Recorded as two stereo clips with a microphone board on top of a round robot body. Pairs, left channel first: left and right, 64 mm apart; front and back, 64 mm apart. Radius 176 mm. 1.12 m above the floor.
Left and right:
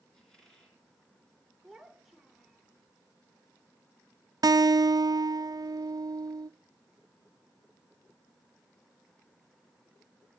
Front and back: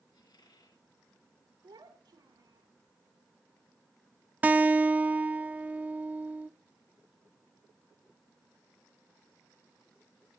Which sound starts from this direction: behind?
A child speaking, at 1.6 s.